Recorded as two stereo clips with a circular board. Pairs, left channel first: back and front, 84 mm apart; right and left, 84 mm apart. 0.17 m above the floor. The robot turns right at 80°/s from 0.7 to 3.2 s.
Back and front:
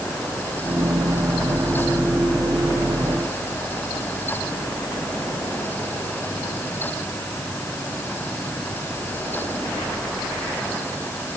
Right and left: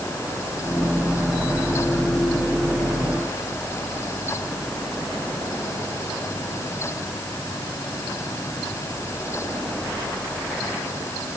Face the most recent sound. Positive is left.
No sound to turn to.